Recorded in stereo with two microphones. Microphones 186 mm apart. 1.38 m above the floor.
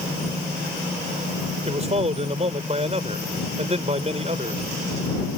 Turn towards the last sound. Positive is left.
turn(degrees=-35)  # may be behind; listen again after turning